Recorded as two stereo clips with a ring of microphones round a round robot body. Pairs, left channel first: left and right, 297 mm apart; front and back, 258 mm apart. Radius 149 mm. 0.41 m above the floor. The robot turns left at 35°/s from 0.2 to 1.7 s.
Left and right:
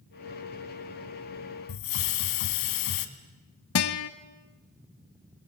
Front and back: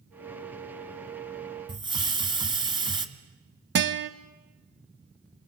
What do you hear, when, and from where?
1.7 s a hiss: 110° left, 2 m; by 3.1 s 105° left, 2 m
3.8 s a guitar: 135° left, 1.2 m